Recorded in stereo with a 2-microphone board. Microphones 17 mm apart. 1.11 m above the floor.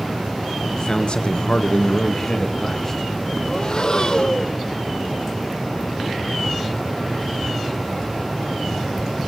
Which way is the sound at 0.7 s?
35° left (ahead or behind).